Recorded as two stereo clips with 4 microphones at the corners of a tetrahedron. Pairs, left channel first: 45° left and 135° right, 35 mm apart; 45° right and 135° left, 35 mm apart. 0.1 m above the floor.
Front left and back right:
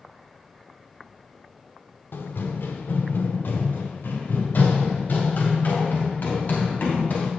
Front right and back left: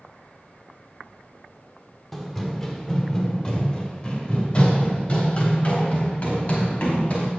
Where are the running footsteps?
40° left, 1.2 m; by 7.3 s straight ahead, 4 m.